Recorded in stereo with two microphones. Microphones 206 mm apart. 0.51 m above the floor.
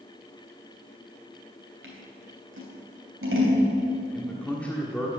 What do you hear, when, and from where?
1.8 s scissors: 65° right (ahead or behind), 3 m
4.1 s a man speaking: 5° left (ahead or behind), 1.4 m